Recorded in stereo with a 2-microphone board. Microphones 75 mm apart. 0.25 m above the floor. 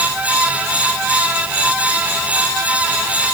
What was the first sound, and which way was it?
Only background noise.